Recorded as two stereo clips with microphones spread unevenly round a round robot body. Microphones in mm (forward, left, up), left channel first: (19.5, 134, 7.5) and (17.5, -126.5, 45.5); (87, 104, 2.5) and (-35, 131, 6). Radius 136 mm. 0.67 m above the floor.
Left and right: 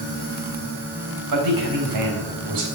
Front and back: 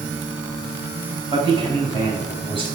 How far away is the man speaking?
About 4 m.